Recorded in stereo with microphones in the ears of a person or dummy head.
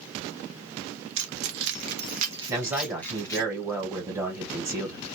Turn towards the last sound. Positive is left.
turn(degrees=-15)  # may be behind; listen again after turning